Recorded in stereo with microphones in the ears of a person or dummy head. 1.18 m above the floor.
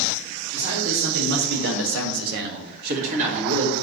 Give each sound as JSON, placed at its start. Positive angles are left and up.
{"t": 0.5, "sound": "a man speaking", "side_deg": -30, "distance_m": 3.0}